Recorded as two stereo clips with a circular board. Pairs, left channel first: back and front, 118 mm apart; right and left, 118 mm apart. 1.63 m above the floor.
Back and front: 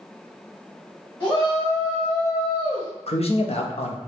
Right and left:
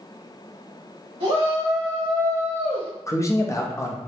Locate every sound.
1.2 s a shout: 125° left, 1.4 m; by 2.9 s 170° left, 1.8 m
3.1 s a man speaking: 155° right, 0.6 m